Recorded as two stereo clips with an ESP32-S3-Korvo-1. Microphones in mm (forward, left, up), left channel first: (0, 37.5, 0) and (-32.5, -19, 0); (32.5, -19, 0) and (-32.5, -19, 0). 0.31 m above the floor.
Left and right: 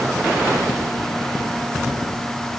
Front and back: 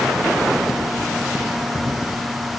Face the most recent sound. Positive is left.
No sound to turn to.